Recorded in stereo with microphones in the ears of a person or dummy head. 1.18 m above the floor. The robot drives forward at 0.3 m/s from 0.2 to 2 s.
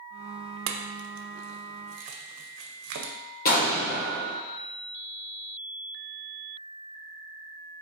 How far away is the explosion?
About 1.3 m.